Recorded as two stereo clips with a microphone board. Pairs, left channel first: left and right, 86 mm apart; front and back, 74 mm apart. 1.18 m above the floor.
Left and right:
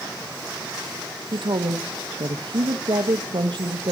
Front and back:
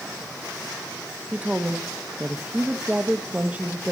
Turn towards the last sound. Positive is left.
turn(degrees=-110)